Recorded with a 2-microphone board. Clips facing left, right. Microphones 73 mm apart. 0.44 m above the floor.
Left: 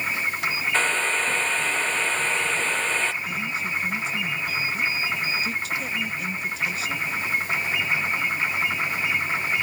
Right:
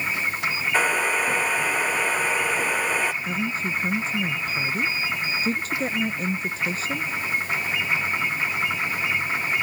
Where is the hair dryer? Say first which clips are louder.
Right 3 dB; 10° right (ahead or behind).